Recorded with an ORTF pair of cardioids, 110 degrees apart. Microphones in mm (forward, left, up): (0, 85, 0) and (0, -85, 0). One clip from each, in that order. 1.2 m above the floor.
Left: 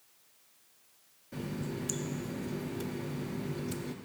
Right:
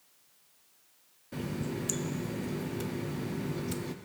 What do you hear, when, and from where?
1.3 s a running tap: 15° right, 0.5 m